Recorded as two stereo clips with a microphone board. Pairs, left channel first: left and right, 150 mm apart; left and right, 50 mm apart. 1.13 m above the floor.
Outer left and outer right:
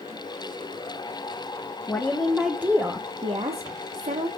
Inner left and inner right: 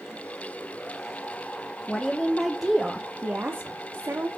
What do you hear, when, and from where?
1.9 s a woman speaking: 15° left (ahead or behind), 1.1 m; by 4.3 s 65° right (ahead or behind), 1.0 m